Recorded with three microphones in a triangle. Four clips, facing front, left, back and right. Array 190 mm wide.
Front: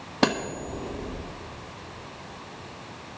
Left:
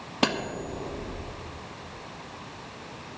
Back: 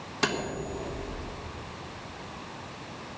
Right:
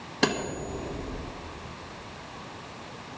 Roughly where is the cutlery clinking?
Ahead.